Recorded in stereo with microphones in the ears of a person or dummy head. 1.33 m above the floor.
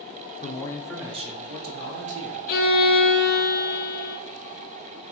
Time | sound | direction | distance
0.4 | a man speaking | 30° left (ahead or behind) | 0.5 m
2.5 | a violin | 40° left (ahead or behind) | 0.6 m